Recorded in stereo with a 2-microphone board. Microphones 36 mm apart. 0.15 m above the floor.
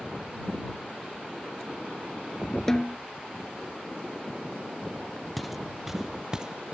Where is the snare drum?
15° left (ahead or behind).